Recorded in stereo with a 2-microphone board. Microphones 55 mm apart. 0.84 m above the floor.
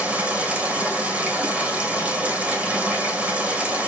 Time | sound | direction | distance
0.0 | running water | 20° right (ahead or behind) | 3.5 m